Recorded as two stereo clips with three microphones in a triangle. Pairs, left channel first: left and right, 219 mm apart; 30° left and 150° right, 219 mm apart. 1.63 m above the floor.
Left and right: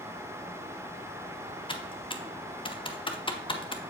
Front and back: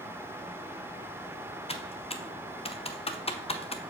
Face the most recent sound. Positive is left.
turn(degrees=55)